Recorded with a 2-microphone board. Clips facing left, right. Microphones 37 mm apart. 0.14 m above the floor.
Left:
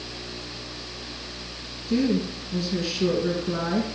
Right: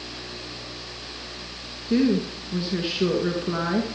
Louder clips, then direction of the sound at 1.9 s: Right 2 dB; 25° right (ahead or behind).